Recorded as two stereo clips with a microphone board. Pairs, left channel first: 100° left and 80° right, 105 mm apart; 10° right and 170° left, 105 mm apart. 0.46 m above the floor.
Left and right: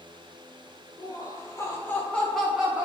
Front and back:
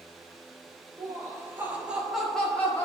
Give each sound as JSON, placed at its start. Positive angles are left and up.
{"t": 1.0, "sound": "laughter", "azimuth_deg": 125, "distance_m": 1.8}